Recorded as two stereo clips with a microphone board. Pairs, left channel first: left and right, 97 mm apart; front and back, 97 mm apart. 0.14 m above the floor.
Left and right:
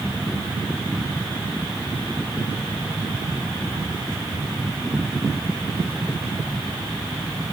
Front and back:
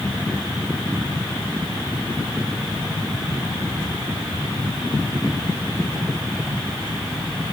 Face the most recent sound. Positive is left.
No sound to turn to.